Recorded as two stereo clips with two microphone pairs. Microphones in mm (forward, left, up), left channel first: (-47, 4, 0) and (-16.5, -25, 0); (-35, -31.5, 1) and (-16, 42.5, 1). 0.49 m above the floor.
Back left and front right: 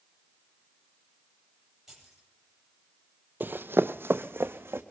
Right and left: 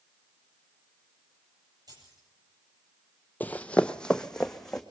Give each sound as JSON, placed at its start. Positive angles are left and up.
{"t": 1.9, "sound": "keys jangling", "azimuth_deg": 40, "distance_m": 9.0}
{"t": 3.4, "sound": "running footsteps", "azimuth_deg": -45, "distance_m": 0.6}